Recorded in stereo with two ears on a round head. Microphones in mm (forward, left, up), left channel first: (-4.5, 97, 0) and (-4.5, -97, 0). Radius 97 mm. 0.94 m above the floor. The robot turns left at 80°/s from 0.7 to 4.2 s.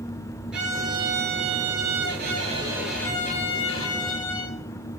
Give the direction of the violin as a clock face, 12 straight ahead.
12 o'clock.